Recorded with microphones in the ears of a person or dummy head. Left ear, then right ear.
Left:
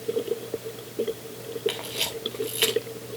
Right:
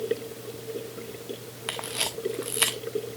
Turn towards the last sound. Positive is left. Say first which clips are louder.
# even
turn(degrees=-10)  # may be behind; listen again after turning